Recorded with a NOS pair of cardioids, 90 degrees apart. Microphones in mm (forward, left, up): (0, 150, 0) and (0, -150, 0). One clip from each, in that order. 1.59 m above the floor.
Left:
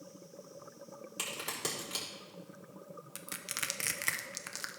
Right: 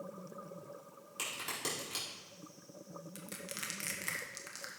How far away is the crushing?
About 0.8 m.